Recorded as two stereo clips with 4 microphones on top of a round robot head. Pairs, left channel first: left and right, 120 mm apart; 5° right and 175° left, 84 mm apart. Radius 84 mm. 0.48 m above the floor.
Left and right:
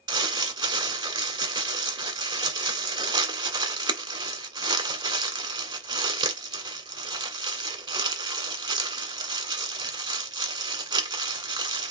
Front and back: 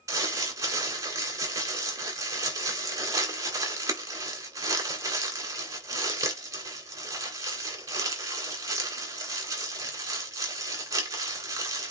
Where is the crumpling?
135° right, 2 m.